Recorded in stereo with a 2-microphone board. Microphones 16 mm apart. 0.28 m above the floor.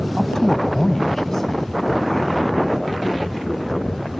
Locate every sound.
0.2 s a man speaking: 25° left (ahead or behind); by 4.1 s 15° left (ahead or behind)